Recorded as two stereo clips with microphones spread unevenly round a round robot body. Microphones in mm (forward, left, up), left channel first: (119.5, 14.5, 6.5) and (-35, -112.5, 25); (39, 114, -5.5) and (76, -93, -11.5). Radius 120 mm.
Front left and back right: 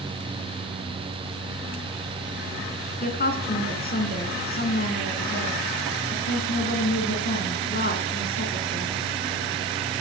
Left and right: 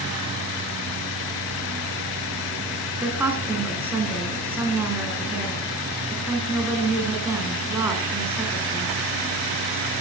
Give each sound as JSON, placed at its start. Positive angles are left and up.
{"t": 3.0, "sound": "a woman speaking", "azimuth_deg": 0, "distance_m": 4.5}